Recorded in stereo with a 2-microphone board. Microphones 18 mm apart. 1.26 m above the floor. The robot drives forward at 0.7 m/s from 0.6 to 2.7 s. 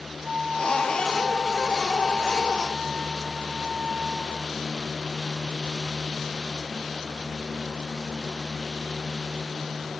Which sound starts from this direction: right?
A flute, at 0.2 s.